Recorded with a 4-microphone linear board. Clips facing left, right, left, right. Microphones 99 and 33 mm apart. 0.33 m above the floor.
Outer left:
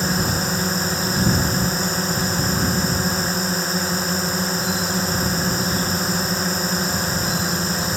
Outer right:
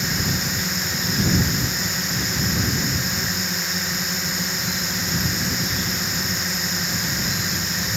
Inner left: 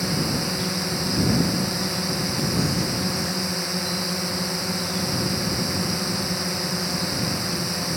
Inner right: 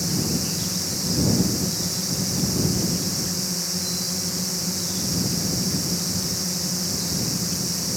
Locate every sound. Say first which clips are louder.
0.0 s a drone: outer left 4 dB, inner left 1 dB; 35° left (ahead or behind)